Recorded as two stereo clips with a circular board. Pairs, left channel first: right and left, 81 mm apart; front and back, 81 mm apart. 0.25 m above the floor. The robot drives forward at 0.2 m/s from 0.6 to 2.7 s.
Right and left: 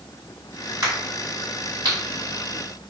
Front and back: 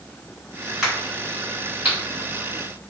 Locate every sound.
0.8 s a crack: 105° left, 1.8 m; by 2.0 s 115° left, 1.9 m